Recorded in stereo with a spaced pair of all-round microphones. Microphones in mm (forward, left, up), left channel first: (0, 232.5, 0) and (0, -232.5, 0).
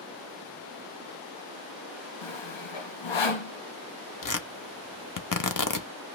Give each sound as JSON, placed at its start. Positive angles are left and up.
{"t": 2.2, "sound": "sawing", "side_deg": 75, "distance_m": 0.6}
{"t": 4.2, "sound": "tearing paper", "side_deg": 45, "distance_m": 0.6}